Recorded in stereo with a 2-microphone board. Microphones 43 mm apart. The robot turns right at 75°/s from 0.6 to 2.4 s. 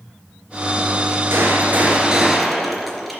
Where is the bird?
No bird in this recording.